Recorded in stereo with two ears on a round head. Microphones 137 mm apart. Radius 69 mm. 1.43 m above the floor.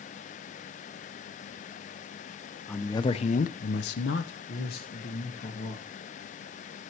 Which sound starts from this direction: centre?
A man speaking, at 2.7 s.